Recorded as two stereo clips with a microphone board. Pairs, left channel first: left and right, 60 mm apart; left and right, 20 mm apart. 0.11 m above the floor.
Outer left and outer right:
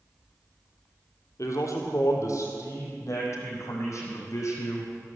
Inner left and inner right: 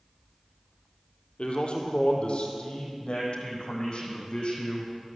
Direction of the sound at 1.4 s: 60° left (ahead or behind).